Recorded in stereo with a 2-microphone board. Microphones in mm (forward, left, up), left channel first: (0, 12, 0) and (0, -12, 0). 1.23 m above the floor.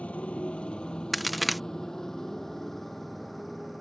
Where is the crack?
Centre (ahead or behind).